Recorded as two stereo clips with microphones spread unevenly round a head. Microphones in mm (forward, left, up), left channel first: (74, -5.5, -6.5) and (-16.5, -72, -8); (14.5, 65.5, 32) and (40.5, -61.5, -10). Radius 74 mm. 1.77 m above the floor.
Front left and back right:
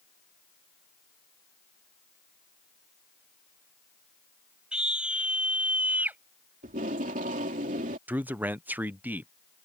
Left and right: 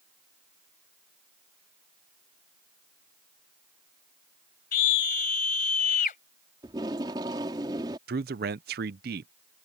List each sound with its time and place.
4.7 s a scream: 130° left; by 6.2 s 140° left
6.6 s tape being pulled: 150° right
8.1 s a man speaking: 70° right